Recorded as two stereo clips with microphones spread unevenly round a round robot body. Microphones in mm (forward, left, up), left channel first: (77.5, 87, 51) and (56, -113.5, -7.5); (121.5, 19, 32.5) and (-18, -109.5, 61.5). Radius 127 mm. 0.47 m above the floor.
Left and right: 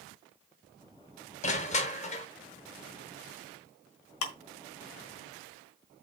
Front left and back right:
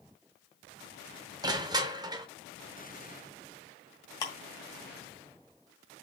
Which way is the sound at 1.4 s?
150° left.